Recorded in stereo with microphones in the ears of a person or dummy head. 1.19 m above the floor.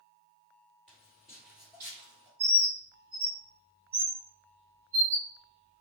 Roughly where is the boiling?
No boiling in this recording.